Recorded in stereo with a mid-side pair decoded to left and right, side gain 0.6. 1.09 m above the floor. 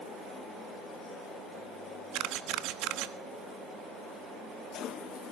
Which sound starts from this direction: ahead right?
A camera shutter, at 2.1 s.